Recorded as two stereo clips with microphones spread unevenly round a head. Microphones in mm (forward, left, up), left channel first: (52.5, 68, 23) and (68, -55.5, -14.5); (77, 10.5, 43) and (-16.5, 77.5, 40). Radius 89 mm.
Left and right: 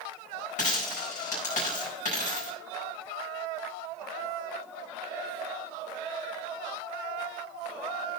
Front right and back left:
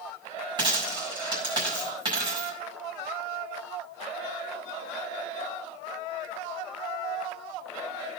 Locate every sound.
0.6 s a dropped coin: 95° left, 5 m